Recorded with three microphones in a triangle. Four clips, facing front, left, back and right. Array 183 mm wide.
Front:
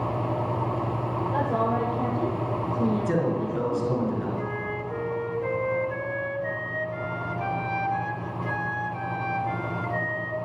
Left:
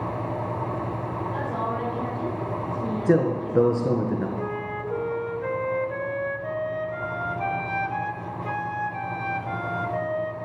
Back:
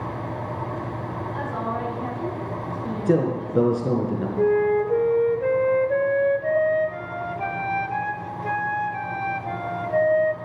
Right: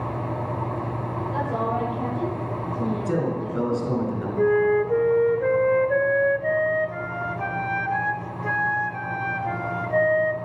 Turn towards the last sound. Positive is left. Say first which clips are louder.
# right 11 dB, back 12 dB
turn(degrees=-140)